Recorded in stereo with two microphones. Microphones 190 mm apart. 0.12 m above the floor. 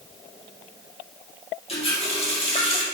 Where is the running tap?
30° left (ahead or behind), 2.5 m.